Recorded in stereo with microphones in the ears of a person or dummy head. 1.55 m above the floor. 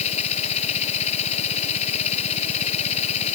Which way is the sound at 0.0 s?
40° left (ahead or behind).